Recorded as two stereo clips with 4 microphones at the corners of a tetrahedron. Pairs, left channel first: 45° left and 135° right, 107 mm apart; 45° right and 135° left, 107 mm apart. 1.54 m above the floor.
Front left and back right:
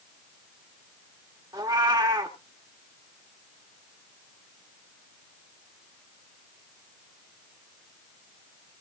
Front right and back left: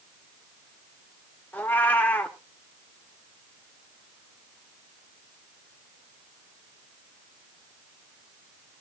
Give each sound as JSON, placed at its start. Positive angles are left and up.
{"t": 1.5, "sound": "a cat meowing", "azimuth_deg": -110, "distance_m": 1.4}